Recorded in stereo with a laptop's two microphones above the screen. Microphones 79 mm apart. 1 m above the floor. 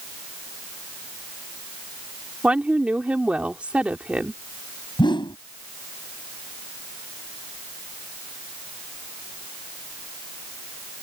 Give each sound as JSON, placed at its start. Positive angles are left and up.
{"t": 2.4, "sound": "a woman speaking", "side_deg": -15}
{"t": 5.0, "sound": "a whoosh", "side_deg": 85}